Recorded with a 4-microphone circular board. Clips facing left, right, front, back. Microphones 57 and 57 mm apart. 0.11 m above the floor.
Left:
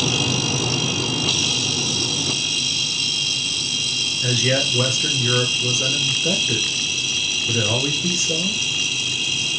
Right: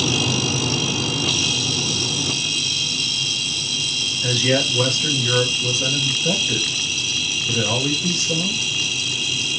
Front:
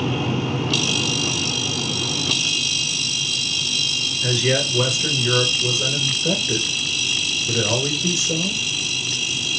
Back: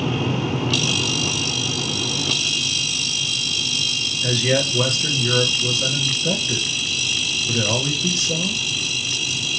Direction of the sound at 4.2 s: 45° left.